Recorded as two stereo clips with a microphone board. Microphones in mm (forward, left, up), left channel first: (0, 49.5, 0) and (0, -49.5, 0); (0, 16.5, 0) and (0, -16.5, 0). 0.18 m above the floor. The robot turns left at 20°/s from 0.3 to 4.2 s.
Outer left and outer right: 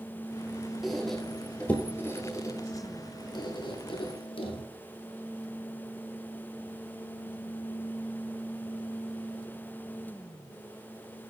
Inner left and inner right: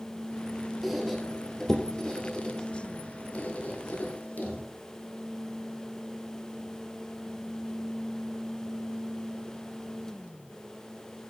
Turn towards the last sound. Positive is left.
turn(degrees=60)  # may be behind; listen again after turning